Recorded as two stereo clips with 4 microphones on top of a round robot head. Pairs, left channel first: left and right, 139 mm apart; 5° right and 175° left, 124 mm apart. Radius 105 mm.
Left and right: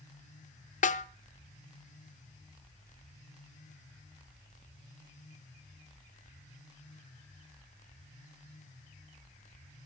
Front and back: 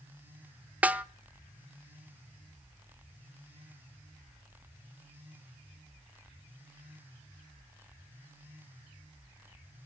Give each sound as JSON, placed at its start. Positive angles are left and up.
{"t": 0.8, "sound": "a snare drum", "azimuth_deg": 95, "distance_m": 0.8}